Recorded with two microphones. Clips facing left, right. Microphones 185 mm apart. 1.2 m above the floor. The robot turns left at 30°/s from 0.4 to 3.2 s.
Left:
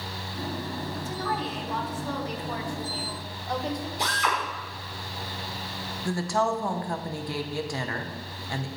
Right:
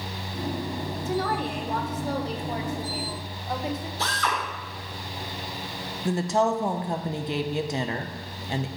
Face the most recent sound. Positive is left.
turn(degrees=-20)  # may be behind; listen again after turning